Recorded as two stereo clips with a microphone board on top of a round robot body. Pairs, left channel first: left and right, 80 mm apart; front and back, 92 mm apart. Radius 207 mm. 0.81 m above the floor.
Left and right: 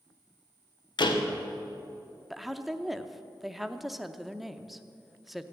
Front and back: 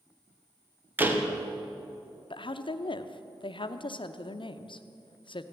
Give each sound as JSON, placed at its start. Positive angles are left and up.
{"t": 1.0, "sound": "a door slam", "azimuth_deg": 110, "distance_m": 1.4}
{"t": 2.3, "sound": "a woman speaking", "azimuth_deg": 0, "distance_m": 0.8}